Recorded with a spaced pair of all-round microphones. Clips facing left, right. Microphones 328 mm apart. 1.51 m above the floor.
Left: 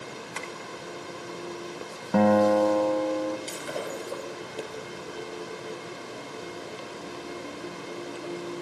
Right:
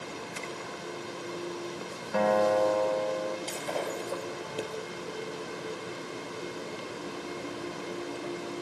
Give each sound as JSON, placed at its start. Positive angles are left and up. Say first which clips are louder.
{"t": 0.3, "sound": "tapping", "louder": "left 1 dB", "side_deg": 85, "distance_m": 6.0}
{"t": 2.1, "sound": "a guitar", "louder": "left 5 dB", "side_deg": 60, "distance_m": 1.6}
{"t": 3.5, "sound": "breaking glass", "louder": "even", "side_deg": 15, "distance_m": 5.0}